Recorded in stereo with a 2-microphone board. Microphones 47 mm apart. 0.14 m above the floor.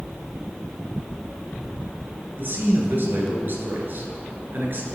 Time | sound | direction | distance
2.4 | a man speaking | 50° right (ahead or behind) | 2 m